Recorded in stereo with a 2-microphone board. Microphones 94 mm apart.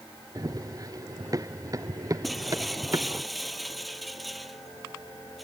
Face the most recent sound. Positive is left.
turn(degrees=0)  # may be behind; listen again after turning